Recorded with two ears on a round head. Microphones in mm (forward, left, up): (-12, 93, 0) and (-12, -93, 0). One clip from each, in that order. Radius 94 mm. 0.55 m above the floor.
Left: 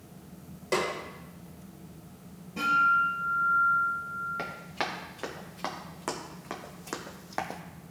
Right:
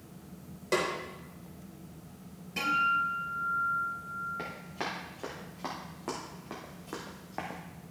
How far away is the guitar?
About 4 m.